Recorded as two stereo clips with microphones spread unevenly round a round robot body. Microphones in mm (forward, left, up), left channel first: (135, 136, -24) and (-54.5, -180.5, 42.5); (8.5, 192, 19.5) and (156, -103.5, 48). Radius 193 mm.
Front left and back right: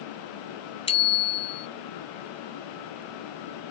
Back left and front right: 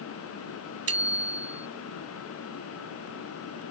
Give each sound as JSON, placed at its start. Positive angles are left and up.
{"t": 0.9, "sound": "a bicycle bell", "azimuth_deg": -15}